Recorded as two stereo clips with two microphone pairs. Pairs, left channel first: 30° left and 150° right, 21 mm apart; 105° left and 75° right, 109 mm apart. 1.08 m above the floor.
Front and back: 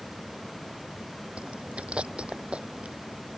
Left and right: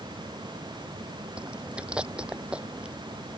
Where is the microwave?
I don't hear a microwave.